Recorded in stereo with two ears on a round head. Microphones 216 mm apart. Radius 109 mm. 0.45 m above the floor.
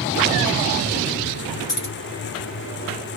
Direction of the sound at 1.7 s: 35° left (ahead or behind).